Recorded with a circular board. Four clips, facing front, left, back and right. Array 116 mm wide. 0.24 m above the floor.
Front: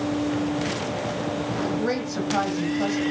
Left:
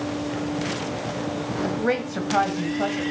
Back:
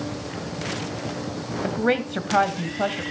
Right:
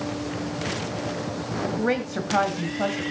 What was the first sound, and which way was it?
A woman speaking, straight behind.